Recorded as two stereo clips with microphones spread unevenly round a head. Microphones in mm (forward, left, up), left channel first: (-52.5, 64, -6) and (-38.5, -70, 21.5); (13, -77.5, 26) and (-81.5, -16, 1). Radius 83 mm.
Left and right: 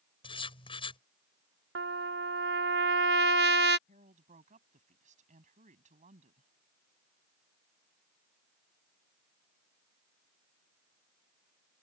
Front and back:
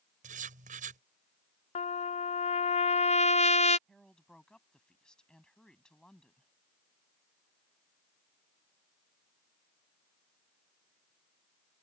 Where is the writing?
150° left.